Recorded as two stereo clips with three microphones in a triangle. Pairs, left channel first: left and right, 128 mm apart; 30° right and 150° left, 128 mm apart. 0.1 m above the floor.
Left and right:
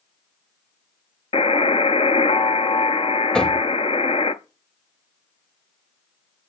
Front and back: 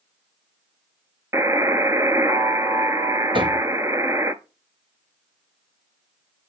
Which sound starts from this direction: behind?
Knocking, at 3.3 s.